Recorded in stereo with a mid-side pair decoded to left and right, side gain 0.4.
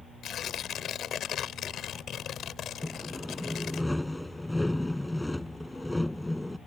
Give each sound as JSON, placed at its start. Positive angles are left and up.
{"t": 0.2, "sound": "tearing paper", "azimuth_deg": 65}
{"t": 2.8, "sound": "sawing", "azimuth_deg": 10}